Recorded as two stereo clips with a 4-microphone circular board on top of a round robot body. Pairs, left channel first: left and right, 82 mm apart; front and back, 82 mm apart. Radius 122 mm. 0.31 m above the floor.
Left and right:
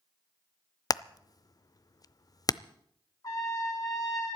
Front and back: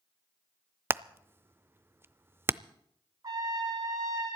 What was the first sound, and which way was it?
Hammering, 120° left.